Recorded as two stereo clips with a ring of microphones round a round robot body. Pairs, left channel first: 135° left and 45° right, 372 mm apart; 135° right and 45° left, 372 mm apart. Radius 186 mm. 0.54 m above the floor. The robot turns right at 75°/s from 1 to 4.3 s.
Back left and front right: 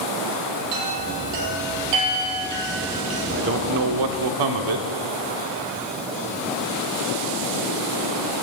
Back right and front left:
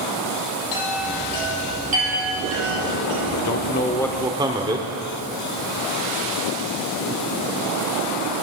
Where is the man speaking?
105° right, 1.2 m; by 4.9 s 35° right, 1.2 m.